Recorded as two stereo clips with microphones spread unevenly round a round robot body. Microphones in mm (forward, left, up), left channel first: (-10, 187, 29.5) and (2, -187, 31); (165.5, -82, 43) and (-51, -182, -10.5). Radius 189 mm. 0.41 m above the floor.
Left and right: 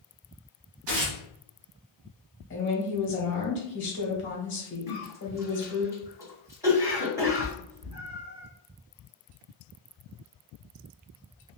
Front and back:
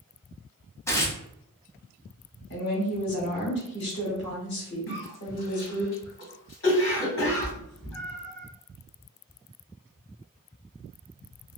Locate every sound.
0.9 s tearing paper: 60° right, 1.1 m
2.5 s a woman speaking: 55° left, 1.1 m
4.9 s a cough: 5° right, 1.4 m
7.2 s a cat meowing: 65° right, 1.2 m